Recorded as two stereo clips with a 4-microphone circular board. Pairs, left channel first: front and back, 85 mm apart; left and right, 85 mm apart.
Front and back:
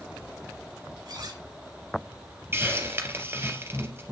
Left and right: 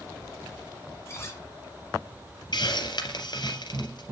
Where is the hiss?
120° left, 2.5 m.